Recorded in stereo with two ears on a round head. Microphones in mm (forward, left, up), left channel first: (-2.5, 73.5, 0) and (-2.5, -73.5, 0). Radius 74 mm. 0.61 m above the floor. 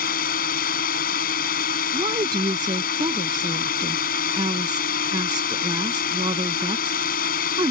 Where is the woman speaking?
25° right (ahead or behind).